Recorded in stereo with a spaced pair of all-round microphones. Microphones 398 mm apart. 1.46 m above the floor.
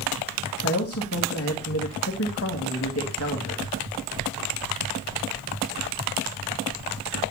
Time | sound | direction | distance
0.6 | a man speaking | 35° left (ahead or behind) | 2 m